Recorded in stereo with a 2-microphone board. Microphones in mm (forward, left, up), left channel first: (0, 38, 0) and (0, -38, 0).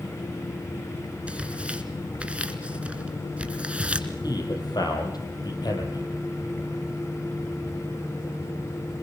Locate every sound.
1.3 s tearing paper: 15° right (ahead or behind), 2 m
4.2 s a man speaking: 60° left (ahead or behind), 6.5 m